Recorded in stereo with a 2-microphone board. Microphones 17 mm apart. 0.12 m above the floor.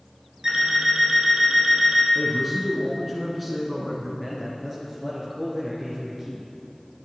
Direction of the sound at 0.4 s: 30° right (ahead or behind).